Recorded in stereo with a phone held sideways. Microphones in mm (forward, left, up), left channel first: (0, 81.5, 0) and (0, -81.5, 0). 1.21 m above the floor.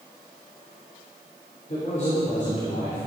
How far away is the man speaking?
About 3.5 m.